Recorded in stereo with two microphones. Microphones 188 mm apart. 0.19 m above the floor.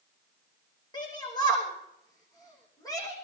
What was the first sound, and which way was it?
A shout, 20° left (ahead or behind).